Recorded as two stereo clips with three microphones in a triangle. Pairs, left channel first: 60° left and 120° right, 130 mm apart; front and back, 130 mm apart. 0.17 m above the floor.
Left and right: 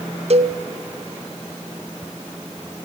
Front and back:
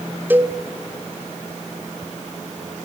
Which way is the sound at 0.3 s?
110° right.